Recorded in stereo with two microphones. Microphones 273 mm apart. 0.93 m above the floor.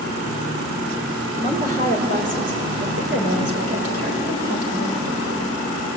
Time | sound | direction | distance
1.4 | a woman speaking | 30° right (ahead or behind) | 4 m